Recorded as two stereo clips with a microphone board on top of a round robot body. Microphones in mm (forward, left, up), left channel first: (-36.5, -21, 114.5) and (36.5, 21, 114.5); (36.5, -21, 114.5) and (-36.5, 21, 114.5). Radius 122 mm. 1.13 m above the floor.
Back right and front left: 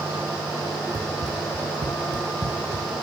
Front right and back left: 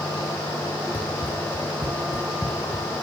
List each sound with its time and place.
0.9 s running footsteps: 15° left, 3 m; by 2.9 s 65° left, 2.5 m